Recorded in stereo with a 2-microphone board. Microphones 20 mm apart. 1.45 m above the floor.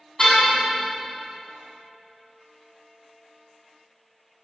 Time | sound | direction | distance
0.2 | a car horn | 20° left (ahead or behind) | 7 m